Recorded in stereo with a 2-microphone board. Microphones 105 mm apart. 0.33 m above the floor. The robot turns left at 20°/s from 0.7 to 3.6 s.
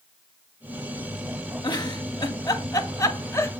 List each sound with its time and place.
1.6 s a giggle: 40° left (ahead or behind), 0.6 m; by 3.5 s 25° left (ahead or behind), 0.6 m